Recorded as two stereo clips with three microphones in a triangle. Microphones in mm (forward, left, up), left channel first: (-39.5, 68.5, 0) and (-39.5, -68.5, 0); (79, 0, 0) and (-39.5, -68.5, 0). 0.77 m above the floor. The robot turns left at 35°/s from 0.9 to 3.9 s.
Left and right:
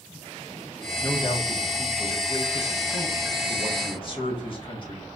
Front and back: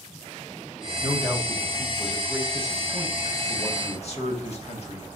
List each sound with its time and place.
1.0 s a man speaking: 150° left, 1.2 m; by 5.1 s 50° left, 1.2 m